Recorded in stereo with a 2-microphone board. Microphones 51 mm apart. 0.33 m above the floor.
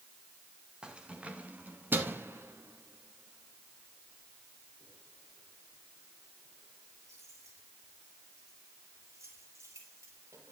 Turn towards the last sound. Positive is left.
turn(degrees=-75)  # may be behind; listen again after turning